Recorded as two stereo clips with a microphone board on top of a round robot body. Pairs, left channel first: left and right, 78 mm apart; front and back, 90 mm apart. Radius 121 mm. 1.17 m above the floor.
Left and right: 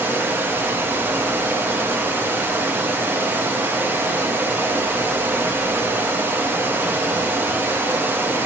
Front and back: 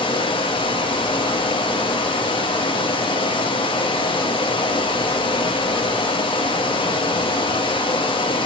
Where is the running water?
25° right, 0.7 m.